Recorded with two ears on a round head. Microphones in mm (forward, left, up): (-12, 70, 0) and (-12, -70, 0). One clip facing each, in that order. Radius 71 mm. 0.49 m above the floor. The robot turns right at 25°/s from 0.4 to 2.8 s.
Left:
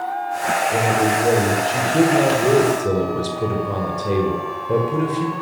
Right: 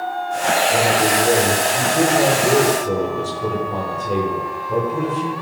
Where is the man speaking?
20° left, 9.5 m; by 5.3 s 75° left, 9.5 m.